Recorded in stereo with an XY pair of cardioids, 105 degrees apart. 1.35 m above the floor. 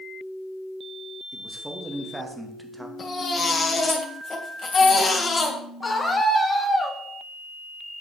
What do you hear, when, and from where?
1.3 s a man speaking: 15° right, 2.5 m
3.0 s a baby crying: 30° left, 3 m
5.8 s a scream: 20° left, 3.5 m